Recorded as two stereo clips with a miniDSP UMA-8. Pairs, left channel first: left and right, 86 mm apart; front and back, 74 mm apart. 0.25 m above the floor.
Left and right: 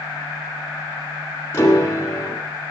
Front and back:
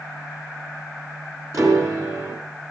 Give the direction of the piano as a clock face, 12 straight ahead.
7 o'clock.